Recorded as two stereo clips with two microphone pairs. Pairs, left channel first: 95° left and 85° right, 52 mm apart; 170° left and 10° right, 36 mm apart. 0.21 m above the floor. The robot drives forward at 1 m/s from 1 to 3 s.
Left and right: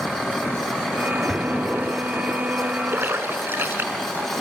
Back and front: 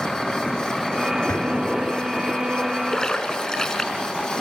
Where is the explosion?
165° right, 0.5 m; by 2.4 s 175° right, 1.6 m.